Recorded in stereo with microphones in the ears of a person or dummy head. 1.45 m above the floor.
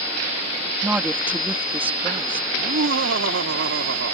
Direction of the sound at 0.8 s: 10° right (ahead or behind).